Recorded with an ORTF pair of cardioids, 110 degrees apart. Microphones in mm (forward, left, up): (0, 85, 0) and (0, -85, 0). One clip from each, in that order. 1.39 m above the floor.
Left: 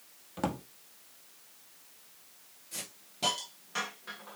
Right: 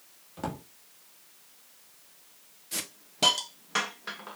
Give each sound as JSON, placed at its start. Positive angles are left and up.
{"t": 0.4, "sound": "a drawer", "azimuth_deg": 25, "distance_m": 1.6}
{"t": 2.7, "sound": "a hiss", "azimuth_deg": -55, "distance_m": 1.4}